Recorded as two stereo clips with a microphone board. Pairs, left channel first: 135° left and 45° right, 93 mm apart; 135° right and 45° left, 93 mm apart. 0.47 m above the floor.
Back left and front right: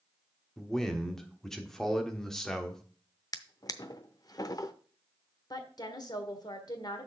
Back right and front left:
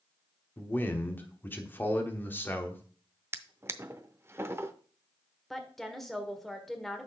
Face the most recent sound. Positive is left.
turn(degrees=140)